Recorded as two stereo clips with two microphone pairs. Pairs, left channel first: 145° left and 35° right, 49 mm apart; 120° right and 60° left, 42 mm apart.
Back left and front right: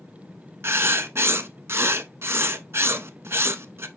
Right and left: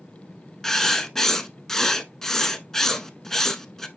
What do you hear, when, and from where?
0.6 s writing: 40° right, 1.0 m